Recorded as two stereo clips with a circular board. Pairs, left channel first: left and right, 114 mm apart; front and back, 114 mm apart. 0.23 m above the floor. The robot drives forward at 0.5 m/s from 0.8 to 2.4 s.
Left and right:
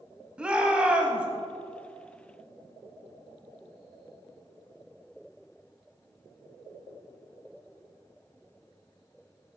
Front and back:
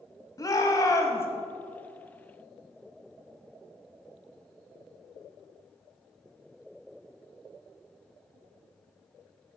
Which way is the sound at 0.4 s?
15° right.